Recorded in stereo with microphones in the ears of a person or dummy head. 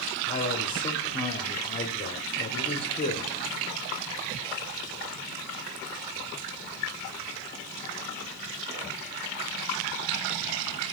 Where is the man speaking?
20° left (ahead or behind), 0.5 m.